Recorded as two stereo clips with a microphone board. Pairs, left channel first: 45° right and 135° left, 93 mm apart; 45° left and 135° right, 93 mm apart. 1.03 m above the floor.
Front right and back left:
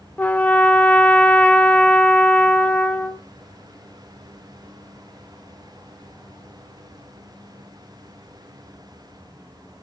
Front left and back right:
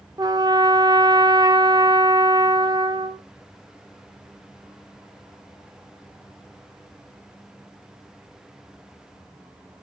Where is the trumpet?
115° right, 0.9 m.